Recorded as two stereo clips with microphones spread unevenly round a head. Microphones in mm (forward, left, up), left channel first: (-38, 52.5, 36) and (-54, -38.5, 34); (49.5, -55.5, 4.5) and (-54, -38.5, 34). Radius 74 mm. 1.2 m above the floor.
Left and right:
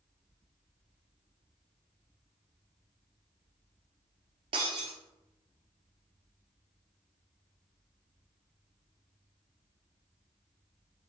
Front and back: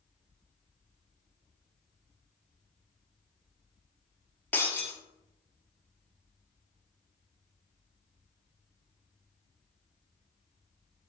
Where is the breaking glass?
95° right, 1.5 m.